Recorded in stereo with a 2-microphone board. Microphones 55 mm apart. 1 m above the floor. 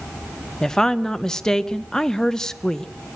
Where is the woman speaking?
10° left (ahead or behind), 0.7 m.